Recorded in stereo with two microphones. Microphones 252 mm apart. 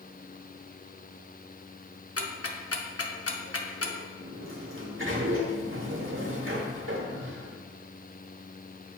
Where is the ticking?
70° left (ahead or behind), 0.7 m.